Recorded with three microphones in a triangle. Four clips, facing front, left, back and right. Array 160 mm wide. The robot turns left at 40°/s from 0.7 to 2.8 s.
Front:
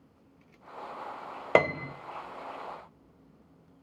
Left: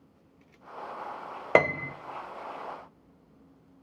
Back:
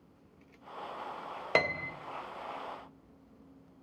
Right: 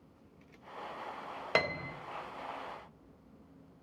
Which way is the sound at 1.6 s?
55° left.